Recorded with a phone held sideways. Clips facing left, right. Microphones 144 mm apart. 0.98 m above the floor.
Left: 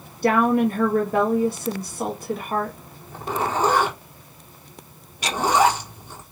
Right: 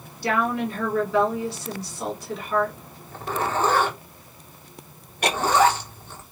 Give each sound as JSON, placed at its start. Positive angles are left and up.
{"t": 0.2, "sound": "a woman speaking", "side_deg": 55, "distance_m": 1.6}
{"t": 3.1, "sound": "a zipper", "side_deg": 15, "distance_m": 1.4}
{"t": 5.2, "sound": "ticking", "side_deg": -60, "distance_m": 0.7}